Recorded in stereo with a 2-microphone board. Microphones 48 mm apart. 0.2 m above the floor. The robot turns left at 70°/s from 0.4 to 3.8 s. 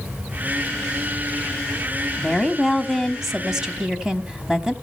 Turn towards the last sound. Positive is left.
turn(degrees=-15)  # may be behind; listen again after turning